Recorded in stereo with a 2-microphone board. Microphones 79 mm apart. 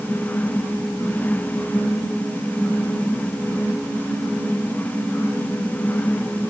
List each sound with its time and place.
Only background noise.